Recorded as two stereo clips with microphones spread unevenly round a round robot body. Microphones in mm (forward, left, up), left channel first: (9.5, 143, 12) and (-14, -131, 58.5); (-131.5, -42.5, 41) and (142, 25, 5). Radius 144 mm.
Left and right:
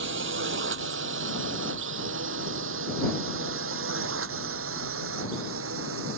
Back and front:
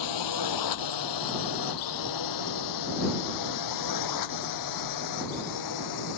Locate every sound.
0.0 s a drone: 145° right; by 6.2 s 140° right